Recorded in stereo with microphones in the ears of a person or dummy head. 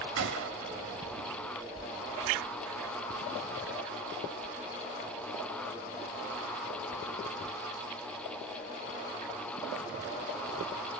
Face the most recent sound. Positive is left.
turn(degrees=-65)  # may be behind; listen again after turning